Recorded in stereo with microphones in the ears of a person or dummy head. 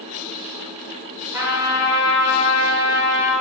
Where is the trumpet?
15° right (ahead or behind), 1.6 m.